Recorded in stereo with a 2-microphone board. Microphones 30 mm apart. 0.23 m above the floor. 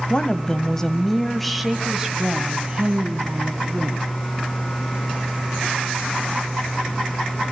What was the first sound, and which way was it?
A woman speaking, 30° left (ahead or behind).